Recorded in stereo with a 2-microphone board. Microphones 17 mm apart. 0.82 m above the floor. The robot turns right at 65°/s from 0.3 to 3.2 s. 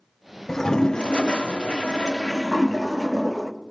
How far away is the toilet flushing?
About 0.5 m.